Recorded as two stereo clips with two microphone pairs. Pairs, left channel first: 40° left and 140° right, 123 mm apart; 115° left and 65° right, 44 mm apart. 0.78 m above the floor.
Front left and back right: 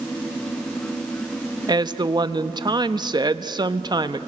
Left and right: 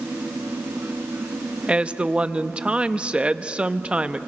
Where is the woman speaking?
115° right, 0.9 m.